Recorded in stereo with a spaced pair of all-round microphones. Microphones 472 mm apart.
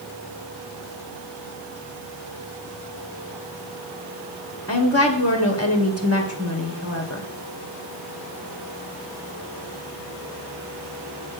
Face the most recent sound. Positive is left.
turn(degrees=30)  # may be behind; listen again after turning